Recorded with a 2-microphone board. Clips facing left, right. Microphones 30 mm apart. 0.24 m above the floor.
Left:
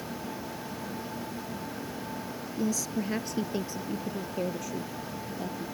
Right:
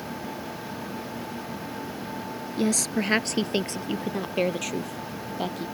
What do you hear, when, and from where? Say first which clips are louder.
2.6 s a woman speaking: right 5 dB; 70° right (ahead or behind); by 5.7 s 75° right (ahead or behind)